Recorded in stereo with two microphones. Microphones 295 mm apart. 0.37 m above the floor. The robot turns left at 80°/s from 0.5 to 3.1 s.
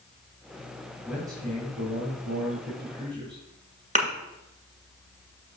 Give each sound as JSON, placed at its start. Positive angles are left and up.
{"t": 1.1, "sound": "a man speaking", "azimuth_deg": 5, "distance_m": 1.9}
{"t": 4.0, "sound": "a thud", "side_deg": -25, "distance_m": 1.7}